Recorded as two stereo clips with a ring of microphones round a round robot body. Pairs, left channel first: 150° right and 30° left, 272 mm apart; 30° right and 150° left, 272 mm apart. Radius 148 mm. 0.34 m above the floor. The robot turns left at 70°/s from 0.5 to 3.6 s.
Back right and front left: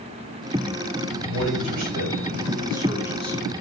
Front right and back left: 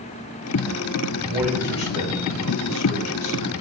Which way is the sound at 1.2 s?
80° left.